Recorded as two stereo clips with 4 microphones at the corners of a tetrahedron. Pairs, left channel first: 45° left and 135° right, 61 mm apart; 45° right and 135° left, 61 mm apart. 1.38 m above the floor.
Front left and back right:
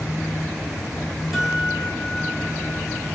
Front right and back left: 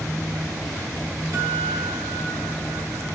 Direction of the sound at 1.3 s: 140° left.